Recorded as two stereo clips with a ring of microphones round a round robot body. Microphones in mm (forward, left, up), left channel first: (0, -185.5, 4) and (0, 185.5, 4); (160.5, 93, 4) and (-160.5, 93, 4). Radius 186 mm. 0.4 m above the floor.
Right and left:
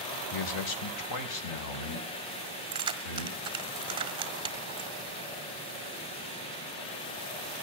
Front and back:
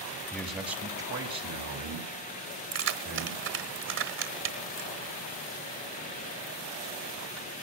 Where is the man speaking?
85° right, 1.1 m; by 3.4 s 140° right, 4.5 m.